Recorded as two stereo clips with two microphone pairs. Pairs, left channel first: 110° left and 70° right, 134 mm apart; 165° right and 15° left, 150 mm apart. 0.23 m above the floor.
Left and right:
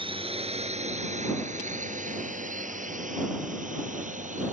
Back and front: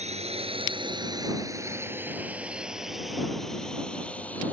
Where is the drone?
25° right; by 4.5 s 90° right.